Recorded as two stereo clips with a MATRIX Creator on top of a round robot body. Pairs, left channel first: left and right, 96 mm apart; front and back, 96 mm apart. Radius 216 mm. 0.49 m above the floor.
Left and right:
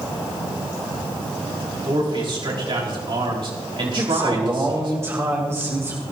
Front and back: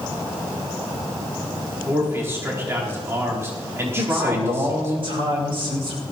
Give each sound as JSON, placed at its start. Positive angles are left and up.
{"t": 1.9, "sound": "a man speaking", "azimuth_deg": -120, "distance_m": 3.5}
{"t": 4.0, "sound": "a man speaking", "azimuth_deg": -155, "distance_m": 3.0}